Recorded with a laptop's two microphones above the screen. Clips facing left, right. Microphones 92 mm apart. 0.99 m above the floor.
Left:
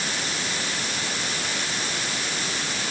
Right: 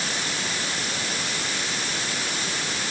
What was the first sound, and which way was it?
Only background noise.